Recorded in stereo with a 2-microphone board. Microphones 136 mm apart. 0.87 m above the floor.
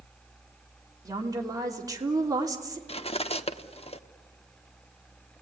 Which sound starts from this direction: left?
Cutlery clinking, at 2.9 s.